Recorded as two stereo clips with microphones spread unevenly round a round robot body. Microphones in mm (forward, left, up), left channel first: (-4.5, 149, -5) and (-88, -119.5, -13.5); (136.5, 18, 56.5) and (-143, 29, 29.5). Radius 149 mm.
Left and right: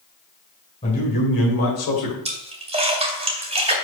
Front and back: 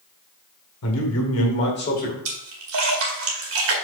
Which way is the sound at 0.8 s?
10° left.